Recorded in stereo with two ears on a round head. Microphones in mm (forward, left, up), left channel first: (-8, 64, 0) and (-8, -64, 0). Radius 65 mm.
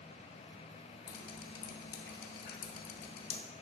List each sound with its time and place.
1.1 s dripping: 75° left (ahead or behind), 0.9 m